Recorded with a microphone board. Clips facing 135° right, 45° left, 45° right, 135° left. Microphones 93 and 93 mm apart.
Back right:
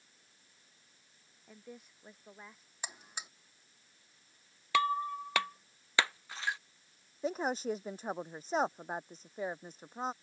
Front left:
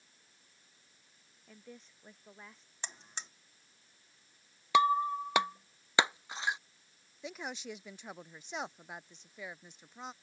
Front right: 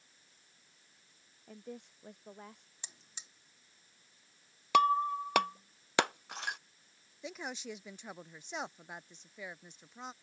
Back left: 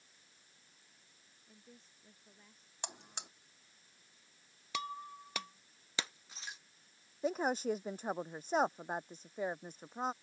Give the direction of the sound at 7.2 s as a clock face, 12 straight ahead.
6 o'clock.